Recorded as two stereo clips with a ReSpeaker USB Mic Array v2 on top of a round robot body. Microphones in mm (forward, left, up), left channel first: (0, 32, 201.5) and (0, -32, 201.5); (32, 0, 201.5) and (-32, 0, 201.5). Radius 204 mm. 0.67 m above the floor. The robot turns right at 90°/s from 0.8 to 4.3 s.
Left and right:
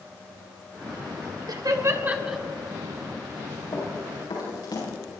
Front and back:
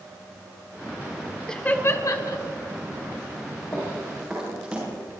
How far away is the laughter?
About 2.5 m.